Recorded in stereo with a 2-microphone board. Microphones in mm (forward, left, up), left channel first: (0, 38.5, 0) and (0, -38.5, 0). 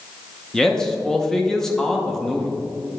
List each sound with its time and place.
0.5 s a man speaking: 5° left (ahead or behind), 0.7 m